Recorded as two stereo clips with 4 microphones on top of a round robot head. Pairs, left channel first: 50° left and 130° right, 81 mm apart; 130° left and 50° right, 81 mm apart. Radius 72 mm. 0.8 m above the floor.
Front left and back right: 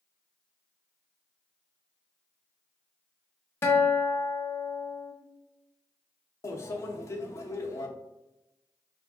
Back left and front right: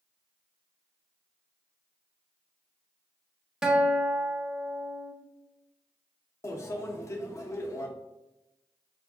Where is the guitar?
30° left, 1.0 m.